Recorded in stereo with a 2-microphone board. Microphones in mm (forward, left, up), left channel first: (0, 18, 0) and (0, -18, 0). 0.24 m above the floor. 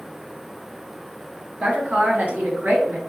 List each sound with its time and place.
1.6 s a woman speaking: 50° right (ahead or behind), 1.6 m; by 3.0 s 55° right (ahead or behind), 2 m